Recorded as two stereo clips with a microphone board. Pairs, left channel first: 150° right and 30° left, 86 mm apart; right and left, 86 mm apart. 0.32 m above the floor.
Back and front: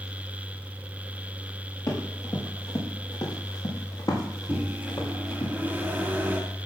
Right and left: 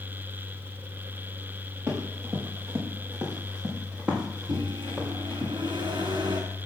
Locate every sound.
1.9 s running footsteps: 160° left, 5.5 m; by 5.5 s 175° left, 4.5 m
4.5 s a microwave: 100° left, 2.5 m